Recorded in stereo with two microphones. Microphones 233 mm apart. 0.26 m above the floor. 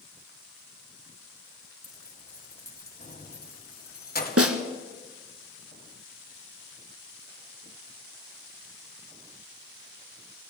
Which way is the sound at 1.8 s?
40° left (ahead or behind).